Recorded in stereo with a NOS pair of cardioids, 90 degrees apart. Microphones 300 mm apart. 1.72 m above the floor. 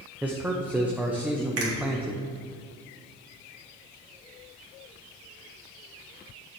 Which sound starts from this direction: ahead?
A man speaking, at 0.2 s.